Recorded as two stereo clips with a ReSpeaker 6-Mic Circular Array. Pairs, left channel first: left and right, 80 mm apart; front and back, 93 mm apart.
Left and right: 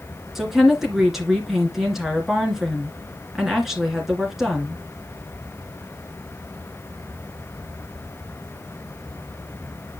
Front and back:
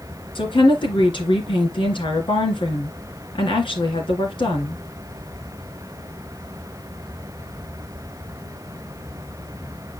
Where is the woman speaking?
5° right, 2.5 m.